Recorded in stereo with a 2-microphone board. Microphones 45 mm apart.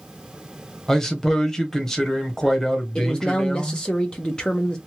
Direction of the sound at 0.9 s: 10° left (ahead or behind).